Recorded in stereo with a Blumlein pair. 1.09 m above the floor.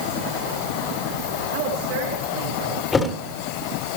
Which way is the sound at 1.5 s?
45° right.